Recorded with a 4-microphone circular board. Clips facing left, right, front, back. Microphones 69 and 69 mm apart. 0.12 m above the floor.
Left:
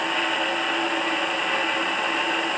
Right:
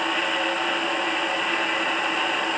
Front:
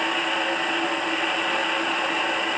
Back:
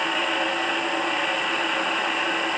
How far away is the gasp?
I don't hear a gasp.